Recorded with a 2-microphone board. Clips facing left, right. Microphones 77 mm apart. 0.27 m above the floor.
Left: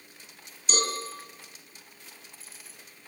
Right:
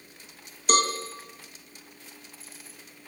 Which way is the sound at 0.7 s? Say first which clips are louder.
Right 7 dB; 60° right (ahead or behind).